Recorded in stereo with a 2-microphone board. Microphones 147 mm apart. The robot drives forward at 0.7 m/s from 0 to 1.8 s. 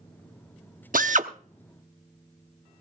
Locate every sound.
0.9 s a drill: 70° right (ahead or behind), 0.8 m; by 2.8 s 40° right (ahead or behind), 1.2 m